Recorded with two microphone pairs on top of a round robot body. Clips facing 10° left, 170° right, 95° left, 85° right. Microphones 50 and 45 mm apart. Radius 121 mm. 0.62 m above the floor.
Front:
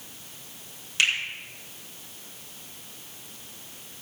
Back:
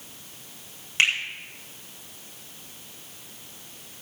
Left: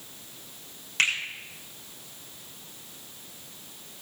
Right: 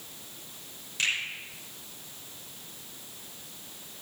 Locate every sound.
1.0 s a finger snap: 130° left, 7 m